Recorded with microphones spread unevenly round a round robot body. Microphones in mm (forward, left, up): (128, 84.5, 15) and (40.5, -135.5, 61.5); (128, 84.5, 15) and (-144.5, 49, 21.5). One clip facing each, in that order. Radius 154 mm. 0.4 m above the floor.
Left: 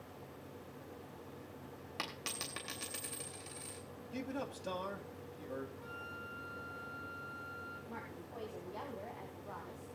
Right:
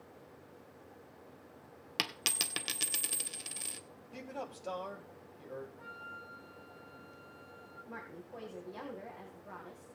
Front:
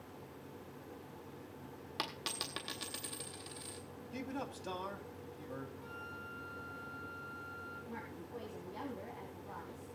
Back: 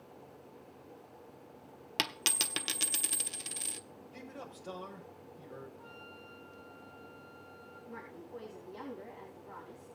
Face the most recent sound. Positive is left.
turn(degrees=-45)